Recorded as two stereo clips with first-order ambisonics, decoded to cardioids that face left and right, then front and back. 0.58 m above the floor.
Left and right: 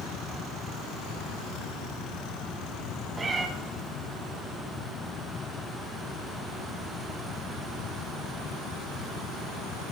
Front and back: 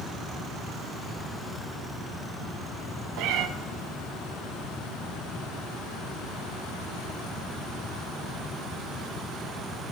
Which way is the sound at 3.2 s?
160° right.